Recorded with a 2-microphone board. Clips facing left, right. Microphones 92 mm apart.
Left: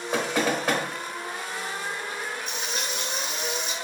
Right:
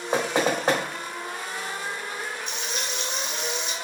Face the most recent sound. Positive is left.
turn(degrees=45)  # may be behind; listen again after turning